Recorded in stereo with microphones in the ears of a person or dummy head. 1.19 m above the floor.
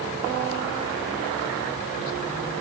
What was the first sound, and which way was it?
Only background noise.